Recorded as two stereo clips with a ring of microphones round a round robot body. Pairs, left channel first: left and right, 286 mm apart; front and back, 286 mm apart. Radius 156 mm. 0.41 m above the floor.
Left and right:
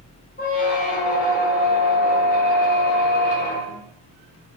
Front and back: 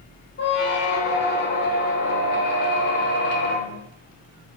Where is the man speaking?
I don't hear a man speaking.